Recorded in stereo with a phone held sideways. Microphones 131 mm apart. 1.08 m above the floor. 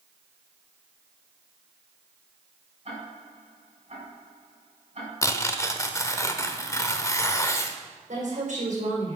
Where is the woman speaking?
70° right (ahead or behind), 5 m.